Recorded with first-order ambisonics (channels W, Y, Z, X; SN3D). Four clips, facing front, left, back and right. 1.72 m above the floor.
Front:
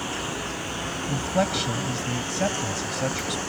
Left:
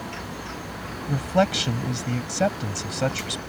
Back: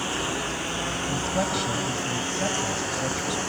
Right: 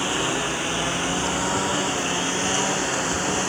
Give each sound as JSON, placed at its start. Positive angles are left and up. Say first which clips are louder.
{"t": 0.0, "sound": "a lawn mower", "louder": "right 11 dB, back 2 dB", "azimuth_deg": -100}
{"t": 1.1, "sound": "a man speaking", "louder": "left 1 dB, front 4 dB", "azimuth_deg": 75}